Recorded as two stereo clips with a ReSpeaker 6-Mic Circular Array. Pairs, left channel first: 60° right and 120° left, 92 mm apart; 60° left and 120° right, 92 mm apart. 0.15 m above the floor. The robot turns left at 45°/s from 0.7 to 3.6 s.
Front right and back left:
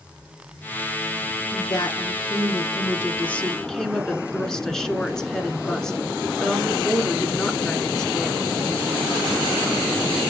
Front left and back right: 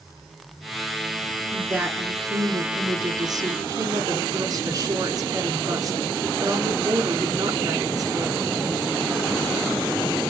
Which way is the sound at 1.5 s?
50° right.